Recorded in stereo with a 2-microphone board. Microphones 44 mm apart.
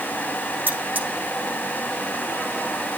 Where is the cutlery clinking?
45° right (ahead or behind), 5.5 m.